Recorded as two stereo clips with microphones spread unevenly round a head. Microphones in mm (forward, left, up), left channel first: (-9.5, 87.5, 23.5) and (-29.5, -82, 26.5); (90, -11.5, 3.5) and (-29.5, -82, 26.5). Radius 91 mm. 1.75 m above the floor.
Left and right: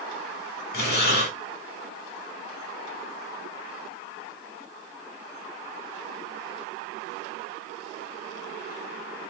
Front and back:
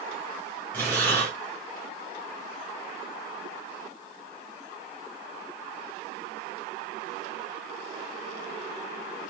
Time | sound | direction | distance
0.7 | breathing | 115° left | 3.5 m